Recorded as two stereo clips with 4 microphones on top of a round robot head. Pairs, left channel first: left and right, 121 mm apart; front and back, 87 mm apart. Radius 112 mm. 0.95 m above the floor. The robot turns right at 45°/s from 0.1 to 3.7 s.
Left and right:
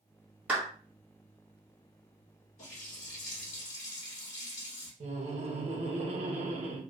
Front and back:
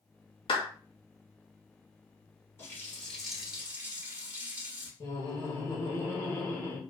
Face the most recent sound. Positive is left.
turn(degrees=-60)